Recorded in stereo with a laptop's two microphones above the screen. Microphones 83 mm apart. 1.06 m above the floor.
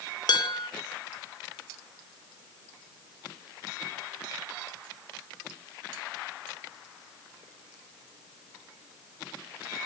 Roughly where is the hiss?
No hiss in this recording.